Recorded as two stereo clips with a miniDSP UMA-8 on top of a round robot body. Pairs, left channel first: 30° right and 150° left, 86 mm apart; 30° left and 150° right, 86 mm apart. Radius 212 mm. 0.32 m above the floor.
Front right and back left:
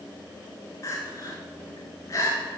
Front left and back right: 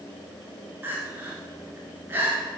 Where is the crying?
85° right, 1.1 m.